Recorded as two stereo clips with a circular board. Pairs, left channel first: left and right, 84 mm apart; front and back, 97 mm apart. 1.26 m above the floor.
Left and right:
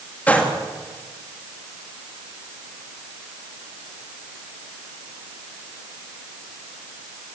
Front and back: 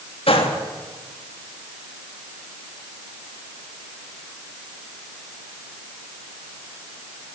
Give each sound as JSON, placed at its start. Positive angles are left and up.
{"t": 0.3, "sound": "a gunshot", "azimuth_deg": 15, "distance_m": 3.0}